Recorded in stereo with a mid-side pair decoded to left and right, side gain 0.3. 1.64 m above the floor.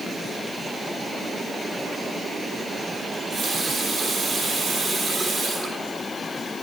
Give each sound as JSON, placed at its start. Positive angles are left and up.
{"t": 3.1, "sound": "a running tap", "azimuth_deg": -65, "distance_m": 8.5}